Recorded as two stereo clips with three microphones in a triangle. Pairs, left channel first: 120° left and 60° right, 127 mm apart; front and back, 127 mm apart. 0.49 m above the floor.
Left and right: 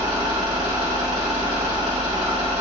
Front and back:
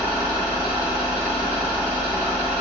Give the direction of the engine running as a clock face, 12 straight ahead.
3 o'clock.